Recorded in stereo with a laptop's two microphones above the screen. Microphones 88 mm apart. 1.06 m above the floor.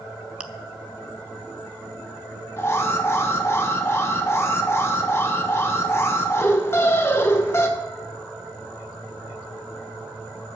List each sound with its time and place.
0.4 s chewing: 15° right (ahead or behind), 0.6 m
2.6 s an alarm: 30° left (ahead or behind), 1.0 m